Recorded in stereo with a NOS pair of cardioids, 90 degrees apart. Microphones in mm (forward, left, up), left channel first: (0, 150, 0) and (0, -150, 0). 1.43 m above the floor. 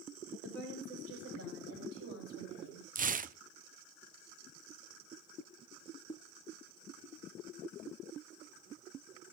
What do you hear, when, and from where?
0.4 s a woman speaking: 60° right, 7.5 m; by 2.9 s 65° right, 9 m
3.0 s tearing paper: 30° right, 0.6 m